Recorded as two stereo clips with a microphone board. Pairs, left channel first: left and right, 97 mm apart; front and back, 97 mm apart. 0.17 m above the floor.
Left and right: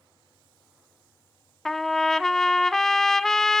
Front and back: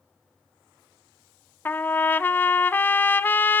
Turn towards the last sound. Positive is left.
turn(degrees=15)